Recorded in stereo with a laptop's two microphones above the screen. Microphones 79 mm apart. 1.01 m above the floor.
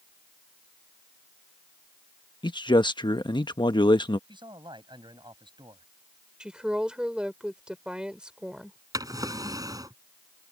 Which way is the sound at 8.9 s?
45° right (ahead or behind).